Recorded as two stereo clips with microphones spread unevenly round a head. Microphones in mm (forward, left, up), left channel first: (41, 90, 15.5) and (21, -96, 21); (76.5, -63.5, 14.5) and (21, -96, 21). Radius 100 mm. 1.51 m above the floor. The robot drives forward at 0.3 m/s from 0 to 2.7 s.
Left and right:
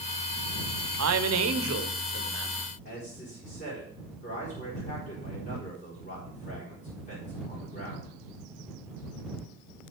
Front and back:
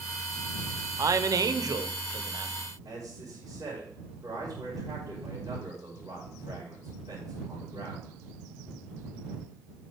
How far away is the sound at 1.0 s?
About 0.8 m.